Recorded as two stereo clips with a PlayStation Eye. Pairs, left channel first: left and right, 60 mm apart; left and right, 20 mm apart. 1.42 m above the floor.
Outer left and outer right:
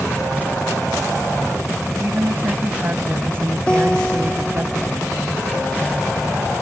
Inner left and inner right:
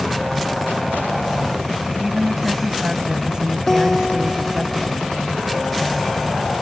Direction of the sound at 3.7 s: 15° left (ahead or behind).